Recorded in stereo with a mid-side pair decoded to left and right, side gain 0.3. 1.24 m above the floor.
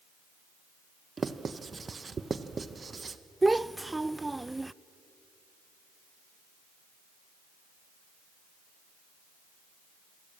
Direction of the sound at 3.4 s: 20° right.